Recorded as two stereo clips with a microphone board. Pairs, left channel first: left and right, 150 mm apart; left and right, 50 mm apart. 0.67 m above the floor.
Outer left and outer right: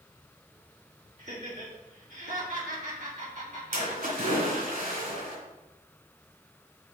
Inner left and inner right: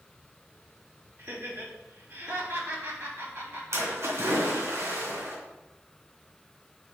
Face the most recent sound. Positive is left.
turn(degrees=-70)  # may be behind; listen again after turning